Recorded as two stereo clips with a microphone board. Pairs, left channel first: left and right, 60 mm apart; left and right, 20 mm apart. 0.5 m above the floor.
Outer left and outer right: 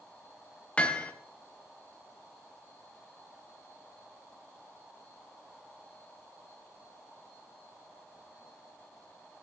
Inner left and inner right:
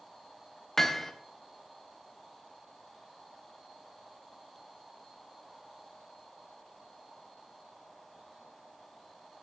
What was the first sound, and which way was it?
Hammering, 20° left (ahead or behind).